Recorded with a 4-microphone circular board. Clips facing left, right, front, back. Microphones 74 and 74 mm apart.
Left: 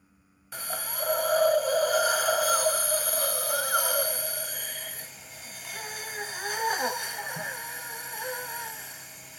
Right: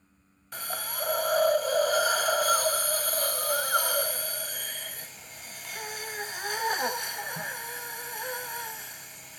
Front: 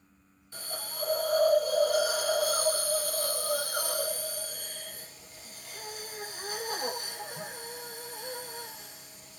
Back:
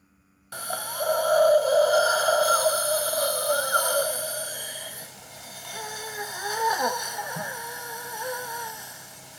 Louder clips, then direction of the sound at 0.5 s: Even, back 10 dB; 175° left.